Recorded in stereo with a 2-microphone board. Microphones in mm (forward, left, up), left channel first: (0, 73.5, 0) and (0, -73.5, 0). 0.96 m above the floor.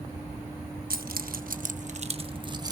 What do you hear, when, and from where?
0.9 s keys jangling: 80° right, 0.8 m; by 2.7 s 25° right (ahead or behind), 0.9 m